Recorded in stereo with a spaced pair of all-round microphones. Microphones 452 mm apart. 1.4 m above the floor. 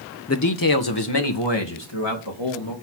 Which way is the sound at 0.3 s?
30° left (ahead or behind).